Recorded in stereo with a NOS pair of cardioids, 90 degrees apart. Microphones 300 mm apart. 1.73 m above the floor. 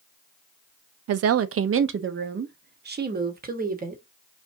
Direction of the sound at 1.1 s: 60° right.